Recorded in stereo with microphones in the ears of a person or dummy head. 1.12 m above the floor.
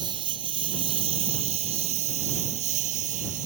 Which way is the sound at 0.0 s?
30° right (ahead or behind).